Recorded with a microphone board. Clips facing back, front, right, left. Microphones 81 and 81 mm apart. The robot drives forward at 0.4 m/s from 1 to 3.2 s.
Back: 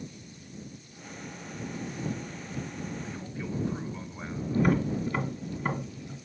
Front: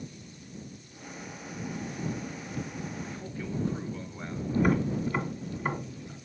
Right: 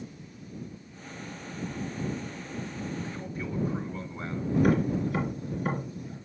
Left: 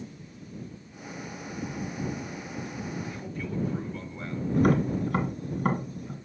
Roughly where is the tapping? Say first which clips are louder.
Even, left 1 dB; left.